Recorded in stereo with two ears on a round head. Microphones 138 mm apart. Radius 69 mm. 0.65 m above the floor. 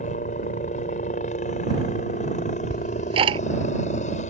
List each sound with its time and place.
0.0 s a helicopter: 50° left (ahead or behind)
2.7 s ticking: 40° right (ahead or behind)